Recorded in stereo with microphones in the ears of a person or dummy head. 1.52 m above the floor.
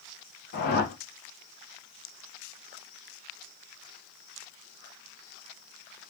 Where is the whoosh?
50° left (ahead or behind), 0.8 m.